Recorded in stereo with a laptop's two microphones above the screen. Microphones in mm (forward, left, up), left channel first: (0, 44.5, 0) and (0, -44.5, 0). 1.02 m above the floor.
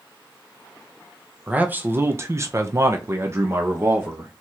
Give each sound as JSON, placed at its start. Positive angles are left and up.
{"t": 1.5, "sound": "a man speaking", "side_deg": -15, "distance_m": 0.9}